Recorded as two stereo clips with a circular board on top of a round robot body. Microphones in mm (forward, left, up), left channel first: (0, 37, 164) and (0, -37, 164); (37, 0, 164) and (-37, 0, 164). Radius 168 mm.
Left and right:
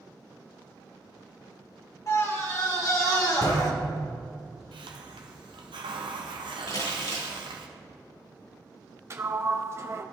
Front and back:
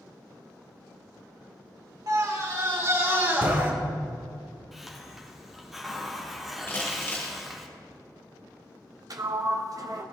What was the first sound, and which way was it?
A scream, 140° left.